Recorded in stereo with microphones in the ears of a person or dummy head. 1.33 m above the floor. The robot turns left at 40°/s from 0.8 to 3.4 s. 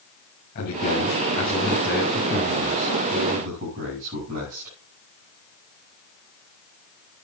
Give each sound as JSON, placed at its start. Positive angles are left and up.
{"t": 0.6, "sound": "a man speaking", "azimuth_deg": 60, "distance_m": 7.0}